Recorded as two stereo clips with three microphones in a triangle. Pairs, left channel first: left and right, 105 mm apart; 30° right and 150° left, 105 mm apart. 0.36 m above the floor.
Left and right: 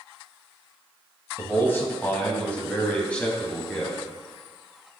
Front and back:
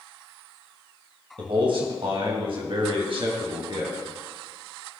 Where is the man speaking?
150° left, 2.5 m; by 4.0 s 170° left, 3 m.